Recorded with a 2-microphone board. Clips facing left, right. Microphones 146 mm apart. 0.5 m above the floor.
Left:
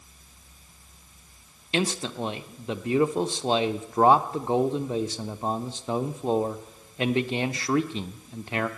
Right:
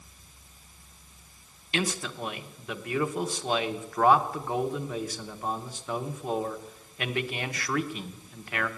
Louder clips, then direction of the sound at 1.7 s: Left 4 dB; 25° left (ahead or behind).